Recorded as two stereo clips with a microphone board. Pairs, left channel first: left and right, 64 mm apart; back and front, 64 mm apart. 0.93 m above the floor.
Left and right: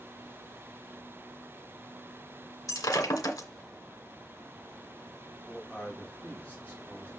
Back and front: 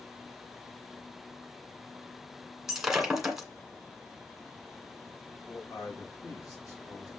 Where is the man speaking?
160° left, 5.5 m.